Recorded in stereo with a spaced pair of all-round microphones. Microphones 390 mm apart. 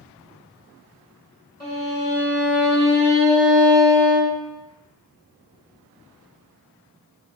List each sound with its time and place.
1.6 s a violin: 10° left (ahead or behind), 1.7 m